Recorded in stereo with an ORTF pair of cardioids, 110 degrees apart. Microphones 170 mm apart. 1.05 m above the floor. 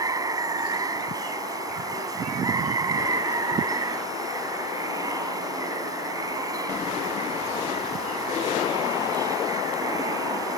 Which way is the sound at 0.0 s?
20° right.